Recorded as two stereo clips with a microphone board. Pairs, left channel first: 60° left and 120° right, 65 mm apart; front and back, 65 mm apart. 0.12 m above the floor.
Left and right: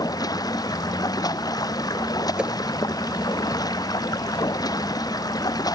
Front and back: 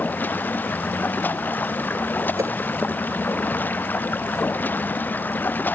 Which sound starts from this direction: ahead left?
Running water, at 0.0 s.